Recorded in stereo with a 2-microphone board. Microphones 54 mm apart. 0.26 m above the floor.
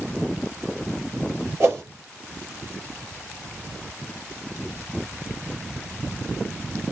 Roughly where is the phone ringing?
No phone ringing in this recording.